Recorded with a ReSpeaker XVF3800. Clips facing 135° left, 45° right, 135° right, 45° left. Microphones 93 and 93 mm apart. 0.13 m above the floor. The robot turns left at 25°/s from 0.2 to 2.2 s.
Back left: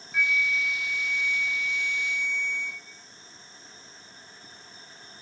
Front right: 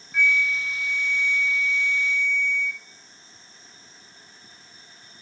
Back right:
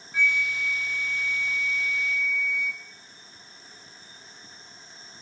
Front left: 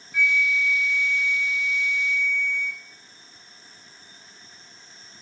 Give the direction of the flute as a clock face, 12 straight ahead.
5 o'clock.